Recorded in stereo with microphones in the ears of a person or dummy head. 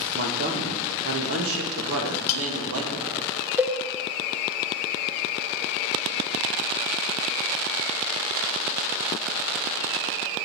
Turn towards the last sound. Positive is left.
turn(degrees=-5)  # may be behind; listen again after turning